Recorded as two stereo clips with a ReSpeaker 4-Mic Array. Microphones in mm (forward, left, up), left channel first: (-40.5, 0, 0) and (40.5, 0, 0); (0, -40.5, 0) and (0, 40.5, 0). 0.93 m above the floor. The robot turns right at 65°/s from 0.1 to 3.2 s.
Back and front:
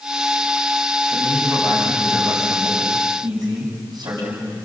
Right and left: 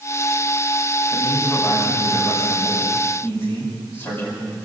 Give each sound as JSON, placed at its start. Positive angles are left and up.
{"t": 1.1, "sound": "a man speaking", "azimuth_deg": -170, "distance_m": 8.0}